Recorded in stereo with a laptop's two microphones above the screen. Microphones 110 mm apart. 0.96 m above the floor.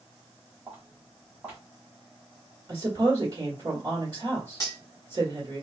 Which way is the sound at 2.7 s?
35° right (ahead or behind).